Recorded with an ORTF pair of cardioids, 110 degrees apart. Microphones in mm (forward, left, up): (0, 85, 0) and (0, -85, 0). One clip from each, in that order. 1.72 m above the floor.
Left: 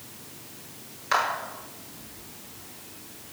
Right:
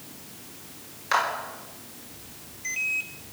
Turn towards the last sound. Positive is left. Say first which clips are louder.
# even
turn(degrees=-10)